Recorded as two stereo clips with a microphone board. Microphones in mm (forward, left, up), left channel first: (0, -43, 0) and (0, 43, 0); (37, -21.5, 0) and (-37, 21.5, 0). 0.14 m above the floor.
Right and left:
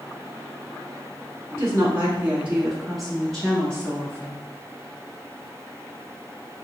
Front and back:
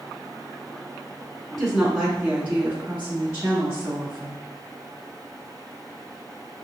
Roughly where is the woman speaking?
Ahead left.